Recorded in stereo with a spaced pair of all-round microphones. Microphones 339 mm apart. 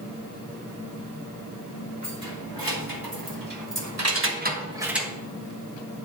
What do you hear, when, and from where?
2.0 s keys jangling: 80° right, 2.5 m; by 5.1 s 5° left (ahead or behind), 1.4 m